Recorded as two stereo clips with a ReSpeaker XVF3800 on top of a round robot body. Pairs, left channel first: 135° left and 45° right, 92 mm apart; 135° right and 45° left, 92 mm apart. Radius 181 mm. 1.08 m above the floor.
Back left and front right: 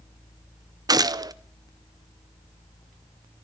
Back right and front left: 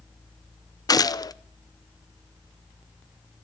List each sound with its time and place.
0.9 s a gunshot: 90° right, 0.9 m